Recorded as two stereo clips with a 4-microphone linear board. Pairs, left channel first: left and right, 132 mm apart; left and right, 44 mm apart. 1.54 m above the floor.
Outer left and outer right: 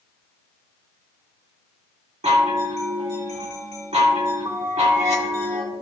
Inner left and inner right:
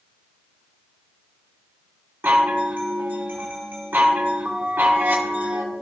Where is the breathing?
I don't hear breathing.